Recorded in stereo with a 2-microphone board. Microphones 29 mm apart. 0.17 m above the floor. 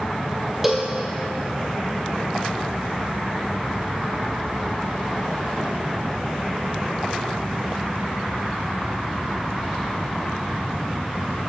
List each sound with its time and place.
0.6 s a cowbell: 10° right (ahead or behind), 1.1 m